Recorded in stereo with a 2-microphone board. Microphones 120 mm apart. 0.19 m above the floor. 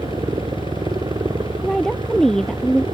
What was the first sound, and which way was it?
A helicopter, 35° right (ahead or behind).